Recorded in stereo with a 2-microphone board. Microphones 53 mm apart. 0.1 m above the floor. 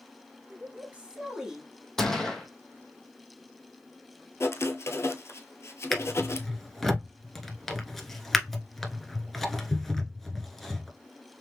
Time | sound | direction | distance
0.5 | a woman speaking | 40° right (ahead or behind) | 1.8 m
2.0 | a gunshot | 10° left (ahead or behind) | 0.8 m
4.4 | writing | 55° left (ahead or behind) | 0.7 m
5.9 | a drawer | centre (ahead or behind) | 0.9 m